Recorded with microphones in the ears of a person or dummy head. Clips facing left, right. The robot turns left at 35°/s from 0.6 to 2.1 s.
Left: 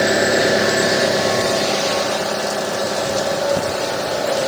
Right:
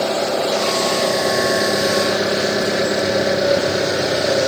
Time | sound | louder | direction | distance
0.0 | an engine running | left 3 dB | 20° left | ?